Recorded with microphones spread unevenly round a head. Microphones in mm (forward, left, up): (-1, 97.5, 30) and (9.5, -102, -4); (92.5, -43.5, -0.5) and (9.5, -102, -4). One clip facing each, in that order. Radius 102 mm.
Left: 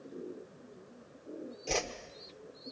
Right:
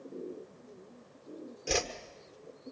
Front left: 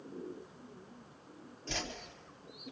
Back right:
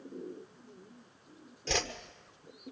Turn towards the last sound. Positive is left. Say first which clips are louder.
# right 2 dB, back right 7 dB
turn(degrees=-160)